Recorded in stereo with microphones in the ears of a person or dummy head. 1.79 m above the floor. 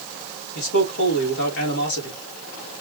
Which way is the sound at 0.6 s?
65° left (ahead or behind).